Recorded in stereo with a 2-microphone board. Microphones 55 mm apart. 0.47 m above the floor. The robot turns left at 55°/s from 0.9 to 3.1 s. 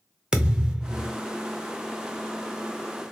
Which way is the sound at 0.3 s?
15° right (ahead or behind).